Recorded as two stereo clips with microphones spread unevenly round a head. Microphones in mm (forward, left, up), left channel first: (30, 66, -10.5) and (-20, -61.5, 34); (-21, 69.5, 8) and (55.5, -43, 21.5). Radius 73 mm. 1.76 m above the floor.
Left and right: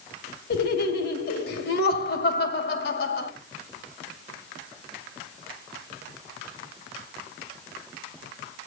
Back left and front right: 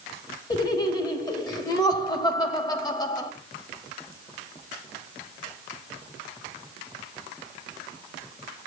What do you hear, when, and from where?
0.5 s laughter: 65° left, 2.5 m